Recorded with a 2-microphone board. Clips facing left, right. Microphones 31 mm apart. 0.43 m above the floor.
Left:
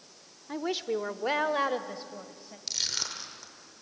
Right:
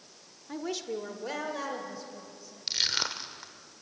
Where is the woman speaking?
15° left (ahead or behind), 0.8 m; by 2.6 s 50° left (ahead or behind), 2 m.